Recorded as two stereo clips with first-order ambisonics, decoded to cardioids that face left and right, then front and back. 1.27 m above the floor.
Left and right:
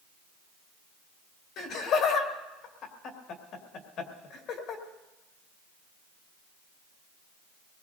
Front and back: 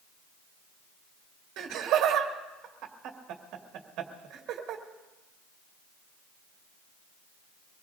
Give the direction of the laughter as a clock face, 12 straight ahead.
7 o'clock.